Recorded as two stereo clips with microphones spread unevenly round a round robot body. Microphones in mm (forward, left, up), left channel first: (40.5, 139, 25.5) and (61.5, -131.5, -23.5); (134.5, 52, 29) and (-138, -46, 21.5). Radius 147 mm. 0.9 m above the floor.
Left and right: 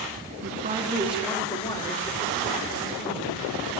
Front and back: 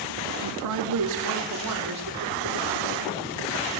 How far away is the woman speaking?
About 1.7 m.